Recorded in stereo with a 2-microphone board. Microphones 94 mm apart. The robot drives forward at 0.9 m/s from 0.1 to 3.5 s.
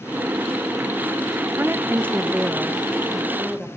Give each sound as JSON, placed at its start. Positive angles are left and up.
{"t": 1.6, "sound": "a woman speaking", "side_deg": -25, "distance_m": 0.6}